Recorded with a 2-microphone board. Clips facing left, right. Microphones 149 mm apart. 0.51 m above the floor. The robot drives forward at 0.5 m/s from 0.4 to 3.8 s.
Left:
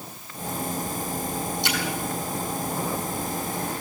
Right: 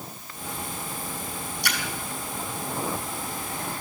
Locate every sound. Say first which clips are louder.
1.6 s a splash: left 4 dB; 20° left (ahead or behind), 5 m